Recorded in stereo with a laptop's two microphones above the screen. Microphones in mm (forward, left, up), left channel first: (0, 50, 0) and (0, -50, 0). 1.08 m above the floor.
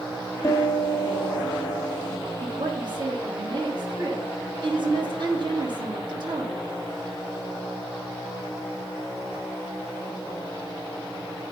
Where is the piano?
35° left (ahead or behind), 2 m.